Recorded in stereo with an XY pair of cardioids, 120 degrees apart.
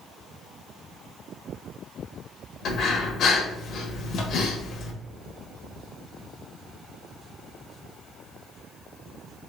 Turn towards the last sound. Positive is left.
turn(degrees=65)